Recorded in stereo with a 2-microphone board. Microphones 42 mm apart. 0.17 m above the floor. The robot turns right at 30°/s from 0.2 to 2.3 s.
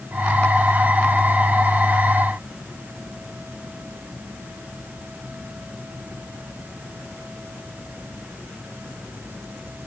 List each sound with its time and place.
Only background noise.